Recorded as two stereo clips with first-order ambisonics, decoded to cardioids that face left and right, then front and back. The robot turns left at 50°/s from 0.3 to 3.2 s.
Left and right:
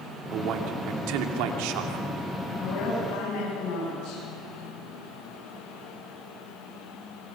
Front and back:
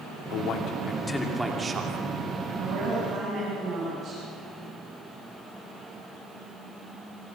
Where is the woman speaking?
130° left, 9 m; by 4.2 s 100° left, 9 m.